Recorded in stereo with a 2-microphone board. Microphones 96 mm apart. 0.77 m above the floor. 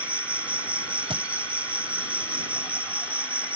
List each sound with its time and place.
0.0 s an insect: 15° right (ahead or behind)
1.1 s a thud: 65° right (ahead or behind)